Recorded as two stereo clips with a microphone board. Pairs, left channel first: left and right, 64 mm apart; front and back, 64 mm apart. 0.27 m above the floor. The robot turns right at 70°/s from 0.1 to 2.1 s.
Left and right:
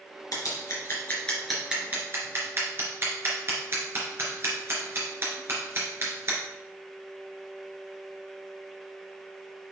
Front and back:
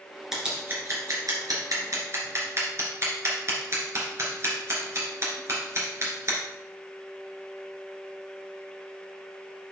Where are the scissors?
95° left, 2.5 m; by 6.4 s 140° right, 2.5 m.